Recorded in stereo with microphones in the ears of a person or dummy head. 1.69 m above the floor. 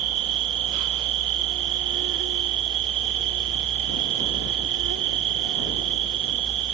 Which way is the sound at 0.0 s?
70° right (ahead or behind).